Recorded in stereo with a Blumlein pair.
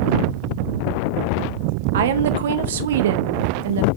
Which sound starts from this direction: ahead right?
A woman speaking, at 1.9 s.